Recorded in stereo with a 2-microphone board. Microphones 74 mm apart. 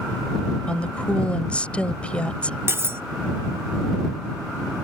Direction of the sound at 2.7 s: 35° right (ahead or behind).